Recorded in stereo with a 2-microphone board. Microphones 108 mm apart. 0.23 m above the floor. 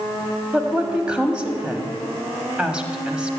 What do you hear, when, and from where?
0.5 s a woman speaking: 10° right (ahead or behind), 1.1 m